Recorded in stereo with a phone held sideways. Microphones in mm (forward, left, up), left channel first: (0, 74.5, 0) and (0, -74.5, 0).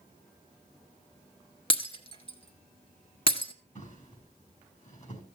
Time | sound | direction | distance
1.7 | breaking glass | 35° left (ahead or behind) | 1.4 m
3.8 | a drawer | 50° left (ahead or behind) | 5 m